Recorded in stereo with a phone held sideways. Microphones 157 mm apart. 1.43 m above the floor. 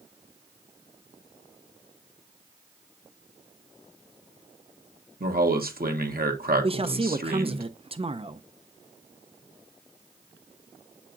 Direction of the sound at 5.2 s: 70° right (ahead or behind).